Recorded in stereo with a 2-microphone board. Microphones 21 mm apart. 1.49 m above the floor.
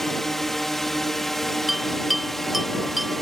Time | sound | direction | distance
0.0 | a drone | 10° left (ahead or behind) | ?
1.7 | a bell | 5° right (ahead or behind) | ?